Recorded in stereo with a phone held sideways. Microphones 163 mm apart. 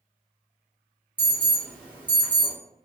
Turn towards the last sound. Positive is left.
turn(degrees=-10)  # may be behind; listen again after turning